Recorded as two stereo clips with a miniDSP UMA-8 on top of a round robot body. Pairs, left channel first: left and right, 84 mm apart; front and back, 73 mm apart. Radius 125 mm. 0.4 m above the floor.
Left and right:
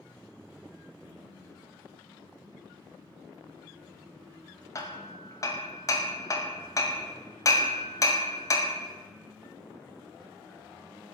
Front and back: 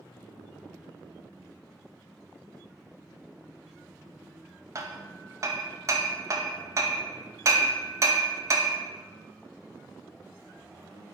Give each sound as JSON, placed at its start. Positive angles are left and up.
{"t": 4.8, "sound": "hammering", "azimuth_deg": 135, "distance_m": 0.6}